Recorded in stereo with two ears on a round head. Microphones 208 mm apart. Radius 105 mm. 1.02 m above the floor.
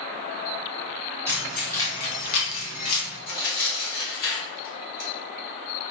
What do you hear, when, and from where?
1.3 s keys jangling: 10° right (ahead or behind), 1.0 m; by 3.2 s 70° left (ahead or behind), 1.2 m
3.3 s tearing paper: 60° left (ahead or behind), 1.4 m